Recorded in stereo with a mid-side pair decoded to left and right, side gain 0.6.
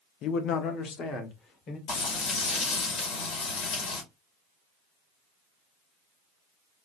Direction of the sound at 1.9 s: 60° left.